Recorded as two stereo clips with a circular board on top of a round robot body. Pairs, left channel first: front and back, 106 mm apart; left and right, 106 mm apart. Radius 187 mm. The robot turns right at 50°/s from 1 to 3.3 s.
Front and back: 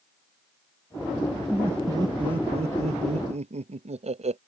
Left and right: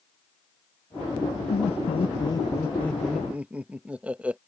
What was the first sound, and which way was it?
Laughter, 100° left.